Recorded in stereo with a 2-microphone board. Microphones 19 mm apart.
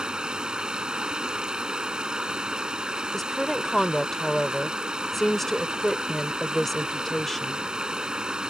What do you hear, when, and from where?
0.0 s running water: 45° right (ahead or behind)
3.1 s a woman speaking: 15° left (ahead or behind)